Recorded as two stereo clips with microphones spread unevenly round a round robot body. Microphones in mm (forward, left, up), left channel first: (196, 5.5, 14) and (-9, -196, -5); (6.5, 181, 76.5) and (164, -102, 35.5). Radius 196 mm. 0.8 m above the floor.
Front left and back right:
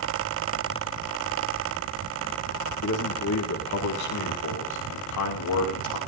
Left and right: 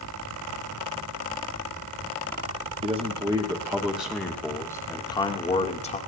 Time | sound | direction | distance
2.8 | a man speaking | 5° left | 2 m